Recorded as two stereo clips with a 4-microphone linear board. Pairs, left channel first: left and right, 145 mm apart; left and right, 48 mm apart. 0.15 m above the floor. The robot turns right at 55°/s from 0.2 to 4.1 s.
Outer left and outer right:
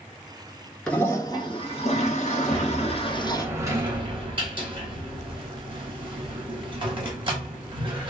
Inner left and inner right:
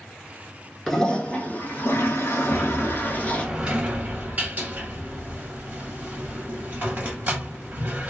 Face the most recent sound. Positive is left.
turn(degrees=-125)